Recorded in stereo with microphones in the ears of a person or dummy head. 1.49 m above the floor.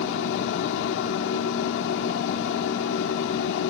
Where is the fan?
70° left (ahead or behind).